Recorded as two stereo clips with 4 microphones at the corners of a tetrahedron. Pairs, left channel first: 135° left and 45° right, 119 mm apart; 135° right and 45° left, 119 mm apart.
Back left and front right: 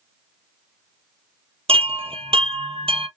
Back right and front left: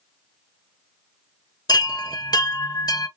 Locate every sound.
1.7 s a chime: 80° right, 0.8 m